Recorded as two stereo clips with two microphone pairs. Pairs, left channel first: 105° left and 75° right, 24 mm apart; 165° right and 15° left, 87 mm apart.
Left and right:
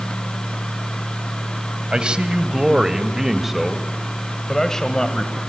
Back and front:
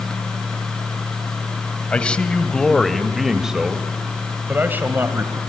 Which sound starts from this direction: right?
A man speaking, at 1.9 s.